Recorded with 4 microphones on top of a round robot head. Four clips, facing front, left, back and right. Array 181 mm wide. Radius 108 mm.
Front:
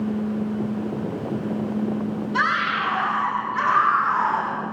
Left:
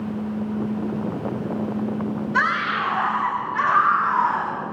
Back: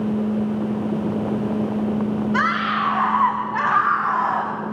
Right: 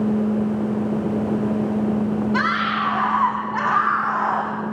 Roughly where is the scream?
Behind right.